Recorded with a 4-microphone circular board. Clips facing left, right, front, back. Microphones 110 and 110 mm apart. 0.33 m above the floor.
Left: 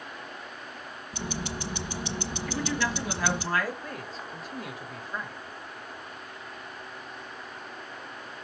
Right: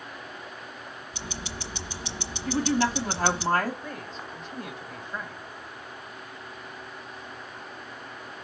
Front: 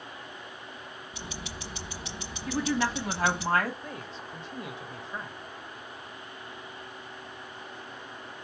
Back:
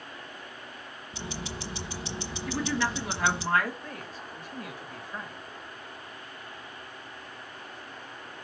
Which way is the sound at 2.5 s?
50° right.